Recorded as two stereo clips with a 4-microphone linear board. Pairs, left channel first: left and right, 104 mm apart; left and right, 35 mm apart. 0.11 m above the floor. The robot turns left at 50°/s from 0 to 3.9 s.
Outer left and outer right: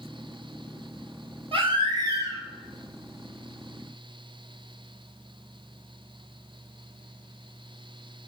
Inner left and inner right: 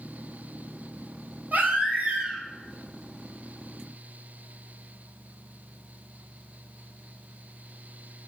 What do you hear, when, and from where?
1.5 s a baby crying: 110° right, 0.8 m; by 2.4 s 155° right, 0.8 m